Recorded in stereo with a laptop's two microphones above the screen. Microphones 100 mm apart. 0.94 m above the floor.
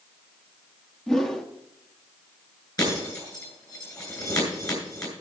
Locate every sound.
1.1 s a whoosh: 5° left (ahead or behind), 0.8 m
2.8 s breaking glass: 40° left (ahead or behind), 8 m